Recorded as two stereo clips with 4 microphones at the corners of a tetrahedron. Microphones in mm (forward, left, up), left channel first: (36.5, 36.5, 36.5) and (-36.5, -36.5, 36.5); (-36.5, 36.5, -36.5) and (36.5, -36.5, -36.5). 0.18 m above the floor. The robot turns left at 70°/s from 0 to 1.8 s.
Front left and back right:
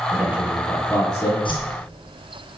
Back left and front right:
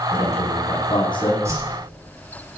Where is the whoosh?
15° left, 3.5 m; by 1.8 s 10° right, 3.5 m.